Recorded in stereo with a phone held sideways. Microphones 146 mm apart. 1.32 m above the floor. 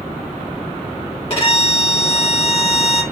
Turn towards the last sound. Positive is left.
turn(degrees=40)  # may be behind; listen again after turning